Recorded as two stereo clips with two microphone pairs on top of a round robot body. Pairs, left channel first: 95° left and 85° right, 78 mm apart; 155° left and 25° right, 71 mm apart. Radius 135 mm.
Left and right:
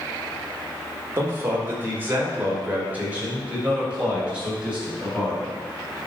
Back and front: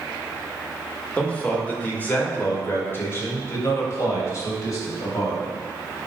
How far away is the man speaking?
About 2.5 m.